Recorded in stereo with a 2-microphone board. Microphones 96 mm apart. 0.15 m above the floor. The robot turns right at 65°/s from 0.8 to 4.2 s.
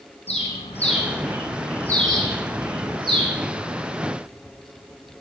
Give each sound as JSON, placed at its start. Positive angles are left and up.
{"t": 0.3, "sound": "a bird", "side_deg": 85, "distance_m": 6.0}